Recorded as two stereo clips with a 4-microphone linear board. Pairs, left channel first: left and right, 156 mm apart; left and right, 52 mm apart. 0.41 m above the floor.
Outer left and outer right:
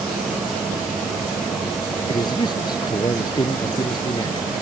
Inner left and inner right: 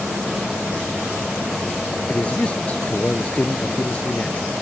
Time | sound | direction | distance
2.1 | a man speaking | 25° left (ahead or behind) | ?